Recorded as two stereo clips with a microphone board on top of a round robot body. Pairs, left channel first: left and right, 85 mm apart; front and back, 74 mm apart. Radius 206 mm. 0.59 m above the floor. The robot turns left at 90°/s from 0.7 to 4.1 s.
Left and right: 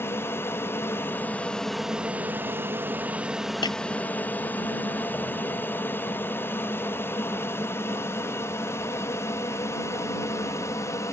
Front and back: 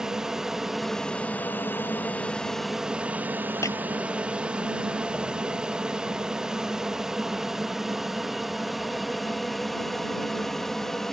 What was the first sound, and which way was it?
An aircraft, 105° left.